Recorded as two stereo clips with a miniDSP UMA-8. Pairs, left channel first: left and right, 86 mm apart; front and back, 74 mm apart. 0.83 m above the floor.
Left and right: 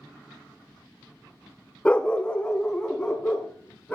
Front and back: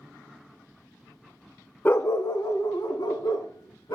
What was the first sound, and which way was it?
A dog barking, 30° left.